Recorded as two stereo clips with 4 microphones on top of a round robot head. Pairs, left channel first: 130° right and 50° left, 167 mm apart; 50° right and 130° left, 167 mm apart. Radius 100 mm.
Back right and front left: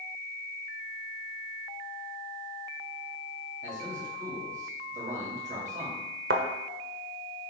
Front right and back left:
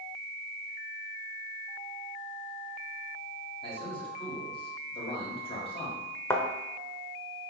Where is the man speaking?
5° left, 3 m.